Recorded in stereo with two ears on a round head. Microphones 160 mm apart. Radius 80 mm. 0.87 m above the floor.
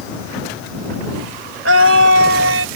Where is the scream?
80° right.